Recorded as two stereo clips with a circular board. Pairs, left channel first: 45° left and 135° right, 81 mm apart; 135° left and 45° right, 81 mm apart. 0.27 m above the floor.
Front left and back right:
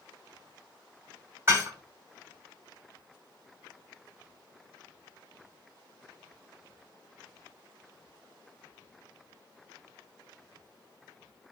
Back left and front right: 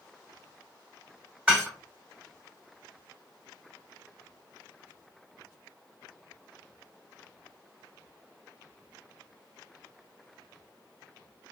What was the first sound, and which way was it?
Dishes clattering, 105° right.